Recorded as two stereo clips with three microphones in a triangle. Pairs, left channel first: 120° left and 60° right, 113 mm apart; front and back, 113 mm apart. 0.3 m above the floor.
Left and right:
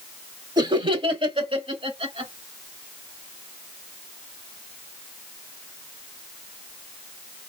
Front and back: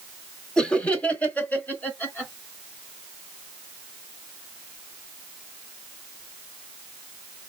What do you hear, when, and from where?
0.6 s laughter: 80° right, 1.1 m; by 2.3 s 70° right, 2 m